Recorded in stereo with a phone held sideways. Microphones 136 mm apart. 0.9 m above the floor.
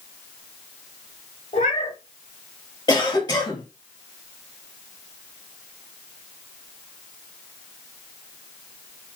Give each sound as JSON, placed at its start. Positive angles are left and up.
{"t": 1.5, "sound": "a cat meowing", "side_deg": 55, "distance_m": 1.0}
{"t": 2.9, "sound": "a cough", "side_deg": 30, "distance_m": 1.3}